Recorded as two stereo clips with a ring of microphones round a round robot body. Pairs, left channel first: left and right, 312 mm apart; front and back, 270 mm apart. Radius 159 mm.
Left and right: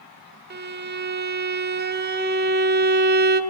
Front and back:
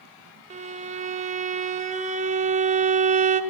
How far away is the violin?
About 1.7 m.